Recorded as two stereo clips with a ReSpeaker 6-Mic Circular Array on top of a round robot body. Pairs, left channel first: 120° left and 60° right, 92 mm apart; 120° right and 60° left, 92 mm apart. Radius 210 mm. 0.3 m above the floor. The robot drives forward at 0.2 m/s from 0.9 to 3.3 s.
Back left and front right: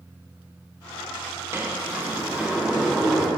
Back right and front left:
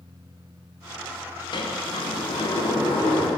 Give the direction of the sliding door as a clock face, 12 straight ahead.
4 o'clock.